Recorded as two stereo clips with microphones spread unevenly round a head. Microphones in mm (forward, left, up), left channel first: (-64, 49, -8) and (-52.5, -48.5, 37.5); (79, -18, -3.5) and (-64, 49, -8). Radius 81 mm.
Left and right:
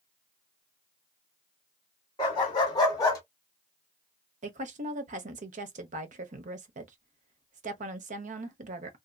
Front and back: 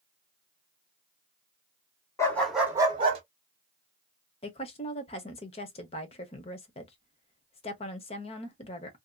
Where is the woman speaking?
80° right, 0.7 m.